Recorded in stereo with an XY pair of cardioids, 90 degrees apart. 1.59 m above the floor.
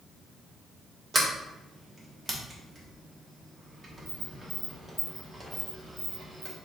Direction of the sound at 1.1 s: 30° right.